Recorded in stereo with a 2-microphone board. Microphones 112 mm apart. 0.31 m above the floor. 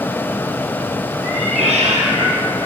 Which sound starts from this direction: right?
A cat meowing, at 1.2 s.